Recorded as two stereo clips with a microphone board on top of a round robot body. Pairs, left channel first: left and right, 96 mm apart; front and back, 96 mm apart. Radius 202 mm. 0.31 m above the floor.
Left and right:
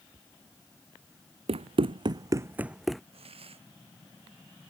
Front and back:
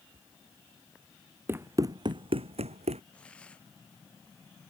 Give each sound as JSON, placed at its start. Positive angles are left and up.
{"t": 1.5, "sound": "running footsteps", "azimuth_deg": -110}
{"t": 3.1, "sound": "a hiss", "azimuth_deg": -80}